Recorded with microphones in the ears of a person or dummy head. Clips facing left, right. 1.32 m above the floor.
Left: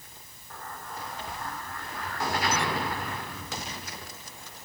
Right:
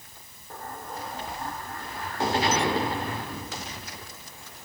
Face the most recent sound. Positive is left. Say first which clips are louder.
# right 3 dB
turn(degrees=-30)  # may be behind; listen again after turning